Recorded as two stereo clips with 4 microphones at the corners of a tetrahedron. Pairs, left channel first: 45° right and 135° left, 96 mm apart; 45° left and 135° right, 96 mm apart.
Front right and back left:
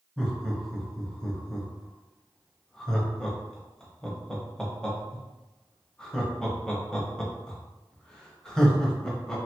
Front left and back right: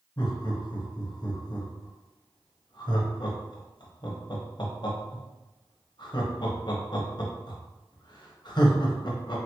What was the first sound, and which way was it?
Laughter, 35° left.